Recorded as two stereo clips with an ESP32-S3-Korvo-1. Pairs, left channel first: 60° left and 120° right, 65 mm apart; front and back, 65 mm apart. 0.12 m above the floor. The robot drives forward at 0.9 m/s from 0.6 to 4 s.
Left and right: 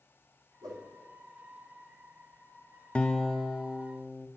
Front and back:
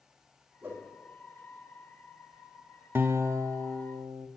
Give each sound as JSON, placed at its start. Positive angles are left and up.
{"t": 0.6, "sound": "a whoosh", "azimuth_deg": -125, "distance_m": 2.5}
{"t": 3.0, "sound": "a guitar", "azimuth_deg": 130, "distance_m": 0.6}